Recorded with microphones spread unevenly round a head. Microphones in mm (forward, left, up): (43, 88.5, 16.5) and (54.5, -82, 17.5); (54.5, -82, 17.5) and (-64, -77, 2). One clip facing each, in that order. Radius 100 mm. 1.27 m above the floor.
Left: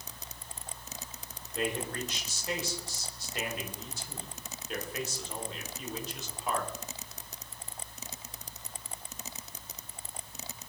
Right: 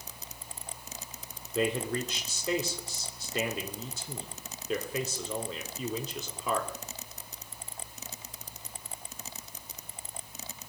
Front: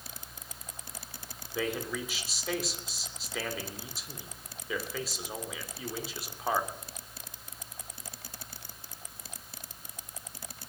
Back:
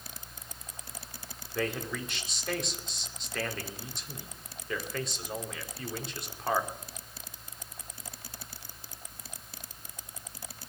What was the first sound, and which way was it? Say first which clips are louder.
A man speaking: right 4 dB, even; 90° right.